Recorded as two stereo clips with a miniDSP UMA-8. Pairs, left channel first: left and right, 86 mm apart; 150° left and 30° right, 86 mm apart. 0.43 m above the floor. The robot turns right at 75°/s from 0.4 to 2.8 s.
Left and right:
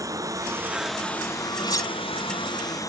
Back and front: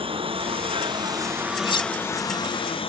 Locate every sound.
0.0 s a lawn mower: 40° right; by 2.9 s 140° left
1.6 s cutlery clinking: 125° left; by 1.9 s 145° left